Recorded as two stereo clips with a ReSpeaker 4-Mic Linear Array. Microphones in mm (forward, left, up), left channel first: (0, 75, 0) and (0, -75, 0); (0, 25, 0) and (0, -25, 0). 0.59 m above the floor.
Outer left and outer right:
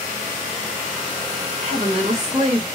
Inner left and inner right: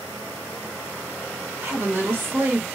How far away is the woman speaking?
About 1.9 m.